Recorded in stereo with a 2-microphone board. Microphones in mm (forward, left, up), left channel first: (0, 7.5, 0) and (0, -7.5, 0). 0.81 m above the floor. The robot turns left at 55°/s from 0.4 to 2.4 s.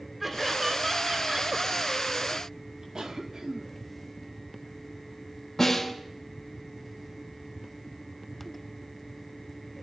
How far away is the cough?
About 1.5 m.